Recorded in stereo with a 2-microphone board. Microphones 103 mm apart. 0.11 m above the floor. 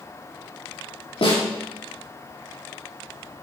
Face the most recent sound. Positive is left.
turn(degrees=70)  # may be behind; listen again after turning